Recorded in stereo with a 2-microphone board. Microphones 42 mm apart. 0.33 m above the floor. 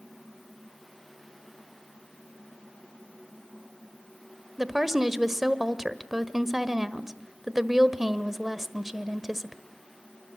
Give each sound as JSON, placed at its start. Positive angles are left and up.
{"t": 4.6, "sound": "a woman speaking", "side_deg": -5, "distance_m": 1.2}